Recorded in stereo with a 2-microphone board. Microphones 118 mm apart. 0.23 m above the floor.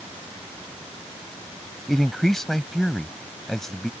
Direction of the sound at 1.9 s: 5° left (ahead or behind).